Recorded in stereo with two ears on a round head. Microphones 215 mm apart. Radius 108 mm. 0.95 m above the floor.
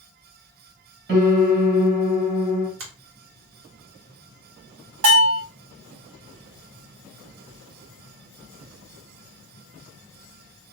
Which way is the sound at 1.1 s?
45° right (ahead or behind).